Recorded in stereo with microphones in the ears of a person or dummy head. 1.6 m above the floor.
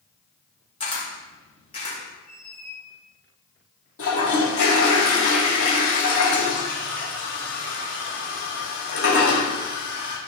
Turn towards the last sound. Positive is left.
turn(degrees=65)  # may be behind; listen again after turning